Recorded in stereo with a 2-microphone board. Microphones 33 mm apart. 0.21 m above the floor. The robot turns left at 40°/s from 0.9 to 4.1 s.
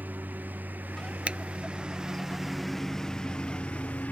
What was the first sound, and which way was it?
A lawn mower, 70° right (ahead or behind).